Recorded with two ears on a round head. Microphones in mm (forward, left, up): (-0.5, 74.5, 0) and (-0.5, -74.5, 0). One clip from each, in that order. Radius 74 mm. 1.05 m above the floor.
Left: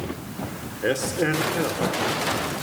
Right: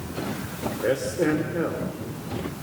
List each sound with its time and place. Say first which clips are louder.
0.8 s a man speaking: left 1 dB; 70° left (ahead or behind), 2.5 m